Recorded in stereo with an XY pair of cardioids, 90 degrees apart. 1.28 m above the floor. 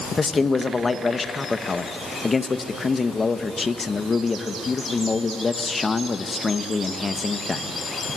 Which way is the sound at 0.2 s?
35° left.